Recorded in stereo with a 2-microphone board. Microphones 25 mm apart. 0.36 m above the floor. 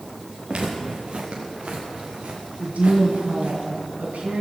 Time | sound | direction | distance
0.5 | footsteps | 45° right (ahead or behind) | 4.5 m
2.6 | a woman speaking | 70° right (ahead or behind) | 3.5 m